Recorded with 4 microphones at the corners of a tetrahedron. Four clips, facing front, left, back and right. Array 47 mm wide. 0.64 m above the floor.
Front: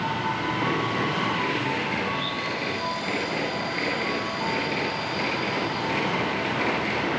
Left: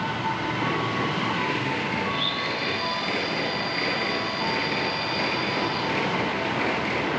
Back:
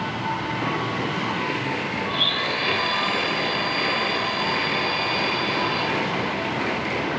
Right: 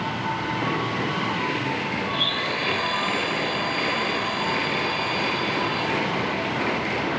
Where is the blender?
155° right.